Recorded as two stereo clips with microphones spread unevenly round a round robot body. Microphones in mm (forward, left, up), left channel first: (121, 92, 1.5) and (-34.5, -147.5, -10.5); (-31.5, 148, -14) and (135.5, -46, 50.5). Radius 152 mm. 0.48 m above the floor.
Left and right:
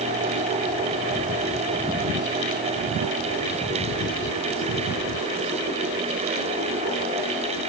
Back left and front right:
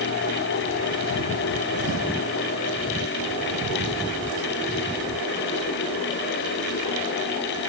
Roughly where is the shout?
No shout in this recording.